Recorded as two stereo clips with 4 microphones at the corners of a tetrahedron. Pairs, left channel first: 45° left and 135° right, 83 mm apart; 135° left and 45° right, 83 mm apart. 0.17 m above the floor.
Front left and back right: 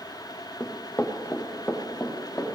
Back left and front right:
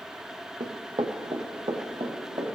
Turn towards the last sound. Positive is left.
turn(degrees=-25)